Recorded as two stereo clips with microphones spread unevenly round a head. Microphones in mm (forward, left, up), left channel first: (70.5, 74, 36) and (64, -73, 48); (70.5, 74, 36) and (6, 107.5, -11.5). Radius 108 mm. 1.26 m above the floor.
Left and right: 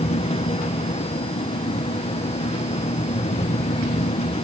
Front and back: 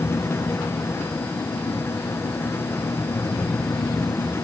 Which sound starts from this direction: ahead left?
A fan, at 0.0 s.